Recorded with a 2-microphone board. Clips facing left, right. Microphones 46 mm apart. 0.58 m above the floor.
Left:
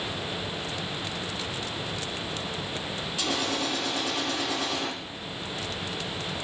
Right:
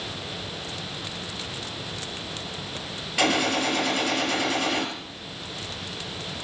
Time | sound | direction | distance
3.2 | a gunshot | 80° right | 5 m